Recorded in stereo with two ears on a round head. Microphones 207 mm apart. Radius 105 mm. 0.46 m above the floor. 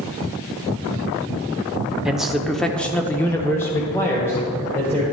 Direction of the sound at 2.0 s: 5° right (ahead or behind).